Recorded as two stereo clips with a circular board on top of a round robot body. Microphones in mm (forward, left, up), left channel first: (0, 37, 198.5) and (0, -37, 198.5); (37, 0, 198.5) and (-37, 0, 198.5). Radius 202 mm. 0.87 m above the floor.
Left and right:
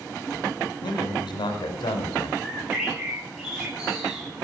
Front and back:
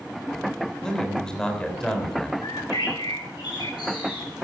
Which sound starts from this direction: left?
A man speaking, at 0.8 s.